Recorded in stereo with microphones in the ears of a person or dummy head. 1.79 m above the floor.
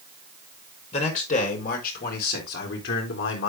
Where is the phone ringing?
I don't hear a phone ringing.